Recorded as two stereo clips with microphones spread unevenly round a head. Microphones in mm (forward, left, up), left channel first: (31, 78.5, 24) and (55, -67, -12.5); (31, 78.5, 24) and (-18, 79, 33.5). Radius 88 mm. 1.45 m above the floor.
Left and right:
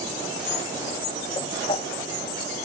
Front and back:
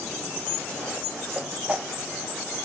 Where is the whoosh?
135° left, 0.7 m.